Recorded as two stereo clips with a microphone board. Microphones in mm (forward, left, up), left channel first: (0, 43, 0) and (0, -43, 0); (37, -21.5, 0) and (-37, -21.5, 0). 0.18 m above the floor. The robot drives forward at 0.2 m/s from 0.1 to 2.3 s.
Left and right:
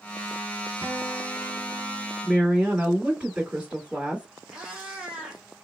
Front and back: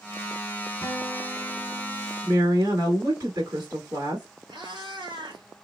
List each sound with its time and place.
0.8 s a guitar: 90° right, 1.8 m; by 2.1 s 105° right, 1.8 m
2.2 s a woman speaking: 165° right, 2.0 m
4.5 s a cat meowing: 175° right, 1.7 m